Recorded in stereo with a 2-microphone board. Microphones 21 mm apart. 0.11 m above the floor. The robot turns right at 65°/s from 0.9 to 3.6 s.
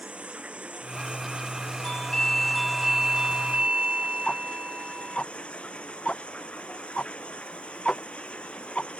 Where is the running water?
105° right; by 9.0 s 70° left.